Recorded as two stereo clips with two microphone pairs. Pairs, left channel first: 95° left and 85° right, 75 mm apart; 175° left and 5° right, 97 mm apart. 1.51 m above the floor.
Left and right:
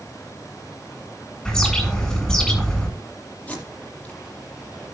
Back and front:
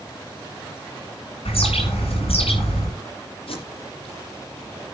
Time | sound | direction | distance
1.4 | a bird | 175° left | 9.5 m
3.5 | tape being pulled | 165° left | 7 m